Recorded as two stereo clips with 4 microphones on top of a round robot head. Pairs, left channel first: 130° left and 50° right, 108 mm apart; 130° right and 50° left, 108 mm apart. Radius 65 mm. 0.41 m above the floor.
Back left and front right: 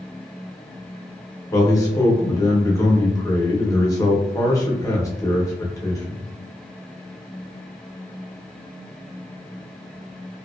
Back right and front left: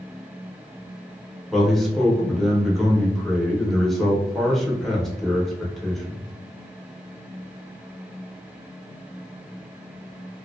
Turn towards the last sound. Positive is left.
turn(degrees=145)